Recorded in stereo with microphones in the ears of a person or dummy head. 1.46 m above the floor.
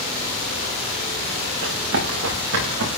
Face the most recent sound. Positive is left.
turn(degrees=-70)  # may be behind; listen again after turning